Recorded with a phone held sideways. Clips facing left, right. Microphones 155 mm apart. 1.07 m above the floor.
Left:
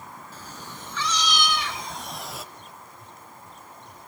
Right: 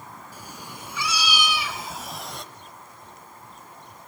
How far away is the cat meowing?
About 3.5 m.